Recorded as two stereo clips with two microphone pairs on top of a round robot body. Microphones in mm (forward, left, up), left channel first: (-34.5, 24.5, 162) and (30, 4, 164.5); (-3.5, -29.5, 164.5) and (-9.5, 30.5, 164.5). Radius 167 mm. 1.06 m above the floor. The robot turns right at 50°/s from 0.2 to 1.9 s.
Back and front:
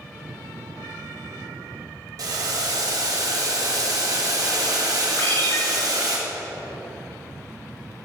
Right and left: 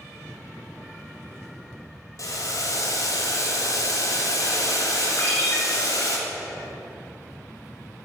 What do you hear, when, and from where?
2.2 s boiling: 50° right, 1.4 m
5.2 s a ringtone: 145° right, 2.5 m